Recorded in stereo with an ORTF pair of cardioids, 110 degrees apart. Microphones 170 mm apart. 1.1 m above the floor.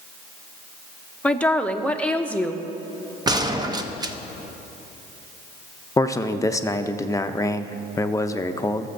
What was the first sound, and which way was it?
A woman speaking, 10° left.